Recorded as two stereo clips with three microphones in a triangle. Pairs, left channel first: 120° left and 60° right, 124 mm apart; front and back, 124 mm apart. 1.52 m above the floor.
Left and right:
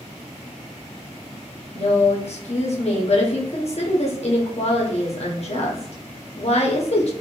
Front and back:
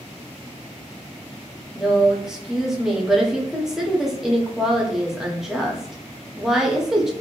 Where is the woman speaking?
95° left, 0.7 m.